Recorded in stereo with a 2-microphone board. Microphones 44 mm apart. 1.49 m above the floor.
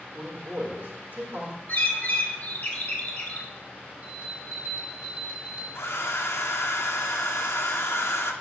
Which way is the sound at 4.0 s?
40° right (ahead or behind).